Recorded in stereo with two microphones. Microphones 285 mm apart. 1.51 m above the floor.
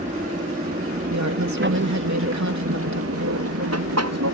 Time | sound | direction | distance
0.0 | an aircraft | 30° right (ahead or behind) | ?
1.1 | a woman speaking | 80° right | ?